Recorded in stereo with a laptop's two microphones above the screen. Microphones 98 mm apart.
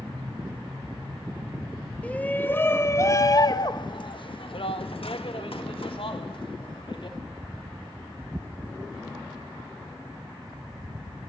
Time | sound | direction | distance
2.0 | a shout | 15° left (ahead or behind) | 2 m